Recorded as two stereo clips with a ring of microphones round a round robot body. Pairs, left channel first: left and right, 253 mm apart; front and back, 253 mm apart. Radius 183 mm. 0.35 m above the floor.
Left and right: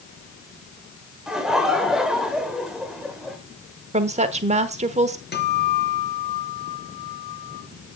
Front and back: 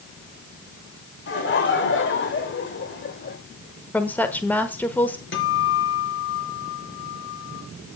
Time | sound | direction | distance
1.3 | laughter | 5° right | 1.4 m
3.9 | a woman speaking | 75° right | 1.2 m
5.3 | a guitar | 40° left | 4.5 m